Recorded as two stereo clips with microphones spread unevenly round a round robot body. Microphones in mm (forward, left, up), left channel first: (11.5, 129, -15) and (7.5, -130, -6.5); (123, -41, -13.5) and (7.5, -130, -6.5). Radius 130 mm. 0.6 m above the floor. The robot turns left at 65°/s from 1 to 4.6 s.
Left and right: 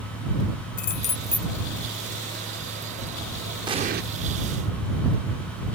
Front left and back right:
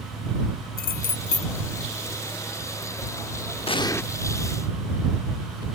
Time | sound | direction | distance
0.8 | keys jangling | 30° left | ?
3.7 | an explosion | 15° right | ?